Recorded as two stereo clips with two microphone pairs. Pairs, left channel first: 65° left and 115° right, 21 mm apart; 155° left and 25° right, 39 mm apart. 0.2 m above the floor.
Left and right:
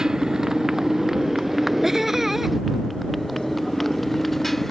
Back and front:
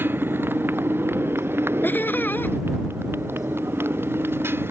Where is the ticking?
I don't hear ticking.